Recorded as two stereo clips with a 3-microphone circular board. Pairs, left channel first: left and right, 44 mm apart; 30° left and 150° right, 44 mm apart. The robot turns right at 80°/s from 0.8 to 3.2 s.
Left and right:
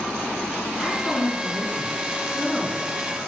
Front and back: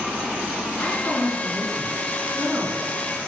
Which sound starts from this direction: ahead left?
A woman speaking, at 0.8 s.